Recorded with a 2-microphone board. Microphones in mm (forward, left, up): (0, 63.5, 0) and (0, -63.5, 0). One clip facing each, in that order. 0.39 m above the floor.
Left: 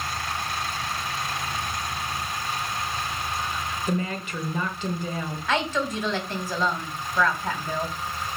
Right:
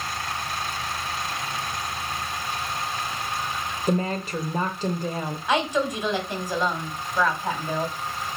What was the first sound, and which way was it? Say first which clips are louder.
A woman speaking: right 5 dB; 40° right (ahead or behind).